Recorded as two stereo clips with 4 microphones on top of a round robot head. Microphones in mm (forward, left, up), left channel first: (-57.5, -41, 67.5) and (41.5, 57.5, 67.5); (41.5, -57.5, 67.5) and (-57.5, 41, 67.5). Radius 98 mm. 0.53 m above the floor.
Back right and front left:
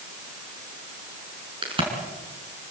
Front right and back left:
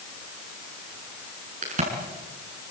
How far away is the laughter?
No laughter in this recording.